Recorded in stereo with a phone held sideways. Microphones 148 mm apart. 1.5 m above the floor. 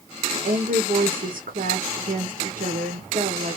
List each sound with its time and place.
0.3 s a woman speaking: 90° right, 0.9 m